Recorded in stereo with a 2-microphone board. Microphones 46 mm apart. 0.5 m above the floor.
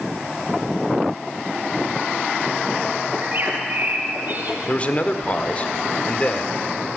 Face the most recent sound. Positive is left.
turn(degrees=30)  # may be behind; listen again after turning